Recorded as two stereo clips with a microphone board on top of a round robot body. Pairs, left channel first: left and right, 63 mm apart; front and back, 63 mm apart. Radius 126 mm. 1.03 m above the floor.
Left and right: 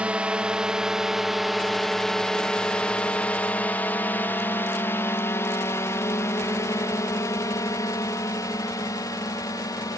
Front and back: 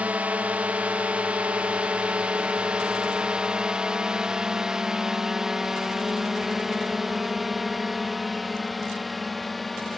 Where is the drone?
140° right; by 10.0 s 85° left.